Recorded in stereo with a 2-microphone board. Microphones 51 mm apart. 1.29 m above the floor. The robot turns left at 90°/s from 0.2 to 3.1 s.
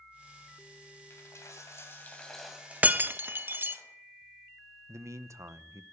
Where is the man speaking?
75° right (ahead or behind), 0.7 m.